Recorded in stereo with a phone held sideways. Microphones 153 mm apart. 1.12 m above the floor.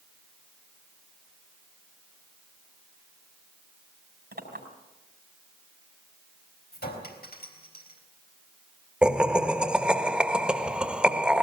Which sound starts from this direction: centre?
Laughter, at 9.0 s.